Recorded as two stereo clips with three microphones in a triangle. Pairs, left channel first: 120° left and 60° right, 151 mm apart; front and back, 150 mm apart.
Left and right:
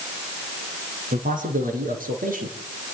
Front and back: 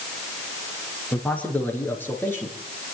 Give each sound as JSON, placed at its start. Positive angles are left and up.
{"t": 1.1, "sound": "a man speaking", "azimuth_deg": -80, "distance_m": 4.5}